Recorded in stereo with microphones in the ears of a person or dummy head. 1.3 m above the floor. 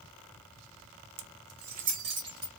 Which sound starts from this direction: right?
Keys jangling, at 1.2 s.